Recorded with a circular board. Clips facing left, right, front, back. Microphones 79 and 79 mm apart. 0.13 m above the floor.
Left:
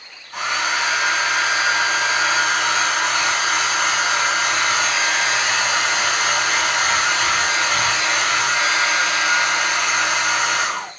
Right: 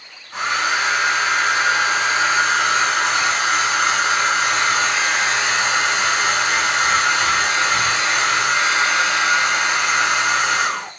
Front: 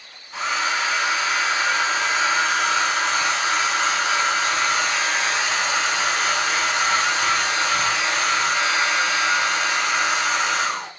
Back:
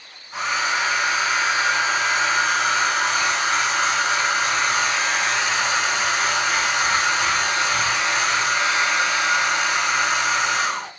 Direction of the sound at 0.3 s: 125° right.